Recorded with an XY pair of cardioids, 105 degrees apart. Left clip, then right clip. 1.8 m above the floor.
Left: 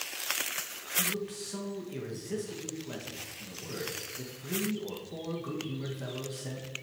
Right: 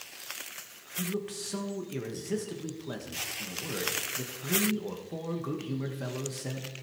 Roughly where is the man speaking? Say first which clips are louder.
Left 2 dB; ahead right.